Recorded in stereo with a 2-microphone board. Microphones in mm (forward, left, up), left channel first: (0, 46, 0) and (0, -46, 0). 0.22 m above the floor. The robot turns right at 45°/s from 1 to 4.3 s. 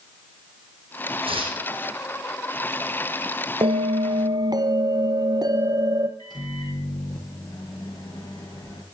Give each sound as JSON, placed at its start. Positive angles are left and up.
{"t": 1.2, "sound": "tearing paper", "side_deg": -85, "distance_m": 2.5}
{"t": 3.6, "sound": "a bell", "azimuth_deg": -80, "distance_m": 1.0}
{"t": 6.2, "sound": "a microwave", "side_deg": 55, "distance_m": 3.0}